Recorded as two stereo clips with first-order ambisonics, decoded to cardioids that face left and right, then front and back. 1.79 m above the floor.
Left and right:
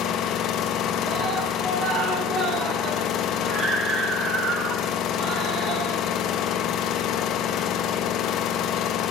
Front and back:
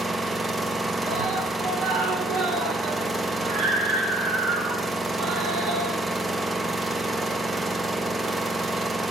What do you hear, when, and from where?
0.0 s an engine running: 105° left, 0.9 m
1.1 s a scream: 155° right, 5.5 m